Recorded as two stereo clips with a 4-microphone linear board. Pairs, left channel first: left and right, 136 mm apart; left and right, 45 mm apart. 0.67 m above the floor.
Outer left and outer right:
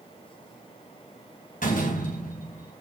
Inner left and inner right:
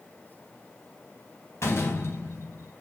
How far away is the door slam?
About 4 m.